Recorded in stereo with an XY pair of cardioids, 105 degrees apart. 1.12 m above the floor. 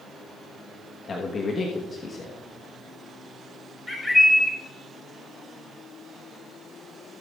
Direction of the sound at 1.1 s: 35° left.